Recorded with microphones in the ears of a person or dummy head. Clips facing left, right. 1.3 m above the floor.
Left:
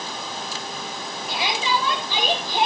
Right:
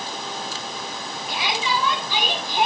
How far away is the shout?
About 9 m.